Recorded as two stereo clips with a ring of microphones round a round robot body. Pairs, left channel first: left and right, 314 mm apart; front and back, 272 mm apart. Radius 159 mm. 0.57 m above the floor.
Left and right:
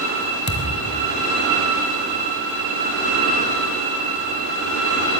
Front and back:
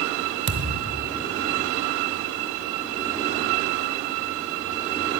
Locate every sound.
0.5 s a thud: 150° left, 1.3 m